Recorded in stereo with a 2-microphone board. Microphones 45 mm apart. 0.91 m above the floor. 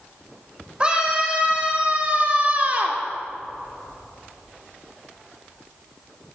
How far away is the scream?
About 4.5 m.